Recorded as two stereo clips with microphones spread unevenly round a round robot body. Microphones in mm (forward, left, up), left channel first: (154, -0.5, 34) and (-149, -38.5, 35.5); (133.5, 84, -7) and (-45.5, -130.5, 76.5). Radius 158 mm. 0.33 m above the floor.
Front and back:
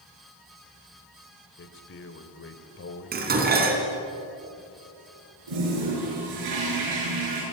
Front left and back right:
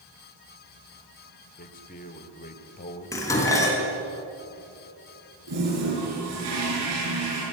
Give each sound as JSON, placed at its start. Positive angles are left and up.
{"t": 1.6, "sound": "a man speaking", "azimuth_deg": 40, "distance_m": 2.0}
{"t": 3.1, "sound": "dishes clattering", "azimuth_deg": 125, "distance_m": 3.0}
{"t": 5.5, "sound": "a toilet flushing", "azimuth_deg": -175, "distance_m": 7.5}